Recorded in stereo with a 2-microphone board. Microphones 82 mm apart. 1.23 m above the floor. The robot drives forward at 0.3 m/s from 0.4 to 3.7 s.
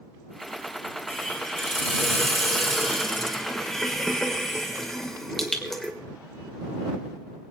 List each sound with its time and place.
1.1 s a hiss: 5° left (ahead or behind), 3.5 m